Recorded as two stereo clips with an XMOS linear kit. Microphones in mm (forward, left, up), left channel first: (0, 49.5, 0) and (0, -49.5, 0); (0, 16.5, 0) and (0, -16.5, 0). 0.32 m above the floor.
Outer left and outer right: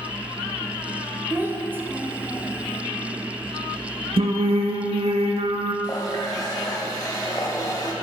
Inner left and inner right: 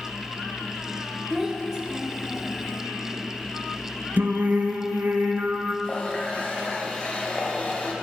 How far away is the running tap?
About 1.0 m.